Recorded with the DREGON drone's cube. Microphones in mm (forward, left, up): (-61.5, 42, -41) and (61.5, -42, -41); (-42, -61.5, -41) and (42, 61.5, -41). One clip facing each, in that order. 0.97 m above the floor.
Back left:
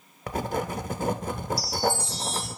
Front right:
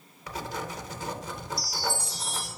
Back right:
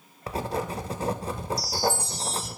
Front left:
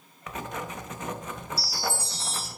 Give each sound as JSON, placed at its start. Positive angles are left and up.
{"t": 0.3, "sound": "writing", "azimuth_deg": 180, "distance_m": 0.6}
{"t": 1.6, "sound": "a chime", "azimuth_deg": 0, "distance_m": 1.4}